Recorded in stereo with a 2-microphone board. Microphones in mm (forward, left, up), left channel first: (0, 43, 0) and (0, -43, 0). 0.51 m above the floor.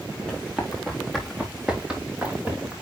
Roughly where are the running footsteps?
Centre.